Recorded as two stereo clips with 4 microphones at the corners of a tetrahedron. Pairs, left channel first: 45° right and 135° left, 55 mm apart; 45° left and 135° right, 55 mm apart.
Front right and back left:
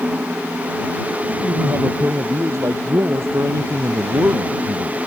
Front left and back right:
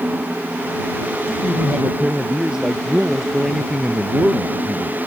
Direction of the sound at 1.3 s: 150° left.